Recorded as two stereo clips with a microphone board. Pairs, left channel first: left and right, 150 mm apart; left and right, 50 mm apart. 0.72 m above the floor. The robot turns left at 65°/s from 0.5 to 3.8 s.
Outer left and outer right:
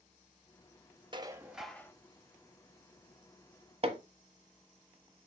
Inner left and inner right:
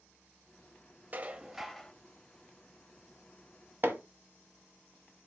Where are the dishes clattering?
145° right, 0.8 m; by 1.9 s 160° left, 0.8 m.